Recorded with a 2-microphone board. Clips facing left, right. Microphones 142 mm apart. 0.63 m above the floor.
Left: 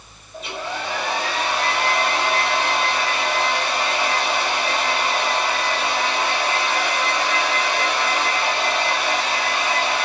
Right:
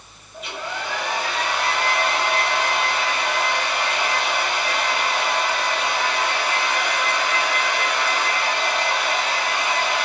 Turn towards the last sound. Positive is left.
turn(degrees=30)  # may be behind; listen again after turning